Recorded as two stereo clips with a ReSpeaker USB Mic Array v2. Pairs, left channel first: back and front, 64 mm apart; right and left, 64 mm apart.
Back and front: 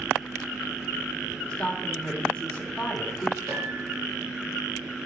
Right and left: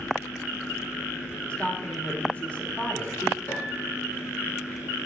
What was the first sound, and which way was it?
A woman speaking, 125° right.